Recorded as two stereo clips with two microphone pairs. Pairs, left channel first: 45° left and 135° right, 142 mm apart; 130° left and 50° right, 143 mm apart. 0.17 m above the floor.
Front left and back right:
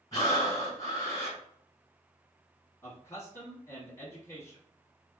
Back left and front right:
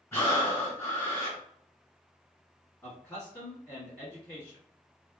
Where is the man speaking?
80° left, 1.2 m.